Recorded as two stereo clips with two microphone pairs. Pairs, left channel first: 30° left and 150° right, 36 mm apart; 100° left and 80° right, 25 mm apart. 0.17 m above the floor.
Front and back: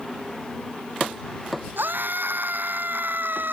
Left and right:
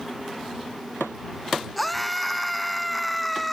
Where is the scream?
170° right.